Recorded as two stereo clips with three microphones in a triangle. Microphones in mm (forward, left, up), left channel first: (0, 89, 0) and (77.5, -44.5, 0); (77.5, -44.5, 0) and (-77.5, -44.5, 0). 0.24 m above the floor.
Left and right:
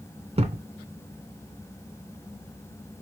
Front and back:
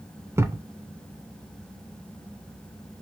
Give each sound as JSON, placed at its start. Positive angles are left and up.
{"t": 0.4, "sound": "a thud", "azimuth_deg": -105, "distance_m": 0.5}